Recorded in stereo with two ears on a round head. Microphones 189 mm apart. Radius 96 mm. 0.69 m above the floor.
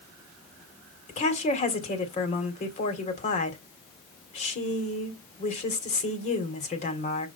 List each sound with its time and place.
1.1 s a woman speaking: 35° left (ahead or behind), 2.5 m